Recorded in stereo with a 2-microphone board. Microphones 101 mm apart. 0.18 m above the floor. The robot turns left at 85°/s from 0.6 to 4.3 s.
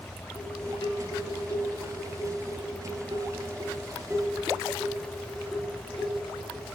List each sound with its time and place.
0.3 s dishes clattering: 140° left, 4 m; by 6.7 s 175° right, 4 m